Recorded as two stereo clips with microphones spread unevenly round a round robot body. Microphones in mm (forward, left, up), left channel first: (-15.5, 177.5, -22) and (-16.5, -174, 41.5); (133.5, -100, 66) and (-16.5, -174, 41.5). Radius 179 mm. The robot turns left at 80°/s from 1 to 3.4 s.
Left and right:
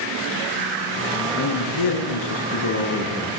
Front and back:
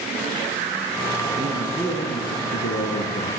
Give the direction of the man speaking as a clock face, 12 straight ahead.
7 o'clock.